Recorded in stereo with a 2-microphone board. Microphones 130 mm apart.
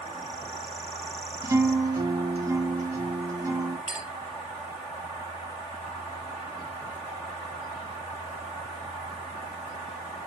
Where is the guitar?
25° right (ahead or behind), 1.8 m.